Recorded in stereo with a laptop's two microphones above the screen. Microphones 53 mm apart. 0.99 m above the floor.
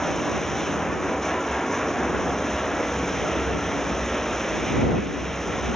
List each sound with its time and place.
0.0 s running water: 5° left (ahead or behind)